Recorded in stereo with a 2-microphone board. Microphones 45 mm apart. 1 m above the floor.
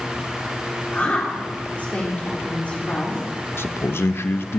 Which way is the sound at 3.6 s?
65° left (ahead or behind).